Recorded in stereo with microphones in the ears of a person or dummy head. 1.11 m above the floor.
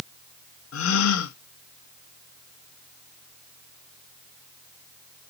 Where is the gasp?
85° left, 0.9 m.